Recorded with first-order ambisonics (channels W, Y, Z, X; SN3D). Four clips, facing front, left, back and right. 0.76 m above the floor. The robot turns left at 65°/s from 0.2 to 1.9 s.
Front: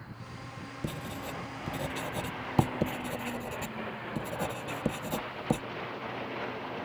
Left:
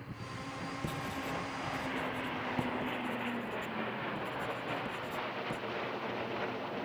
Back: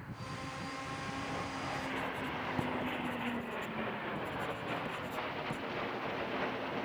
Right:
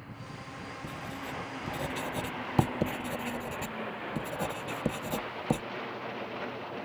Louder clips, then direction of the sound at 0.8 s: Left 1 dB, front 5 dB; 20° left.